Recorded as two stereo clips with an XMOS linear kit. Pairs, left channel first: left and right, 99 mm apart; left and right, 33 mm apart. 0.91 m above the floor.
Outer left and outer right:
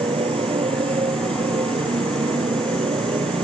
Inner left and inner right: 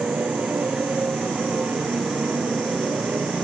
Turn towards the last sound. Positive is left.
turn(degrees=-90)